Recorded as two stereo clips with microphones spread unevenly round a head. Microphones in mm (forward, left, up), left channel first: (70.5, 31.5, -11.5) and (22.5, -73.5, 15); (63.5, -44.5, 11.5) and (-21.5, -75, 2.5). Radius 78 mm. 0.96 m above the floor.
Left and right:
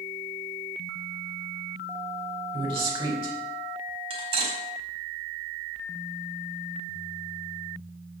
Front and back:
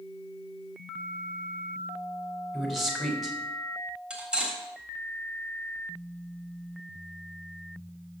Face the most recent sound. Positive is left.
turn(degrees=-80)